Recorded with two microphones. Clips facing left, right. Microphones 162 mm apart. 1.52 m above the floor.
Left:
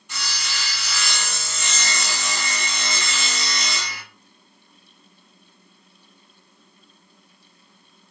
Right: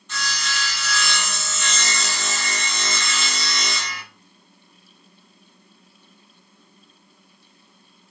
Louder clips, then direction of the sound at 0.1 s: Right 4 dB; 10° left (ahead or behind).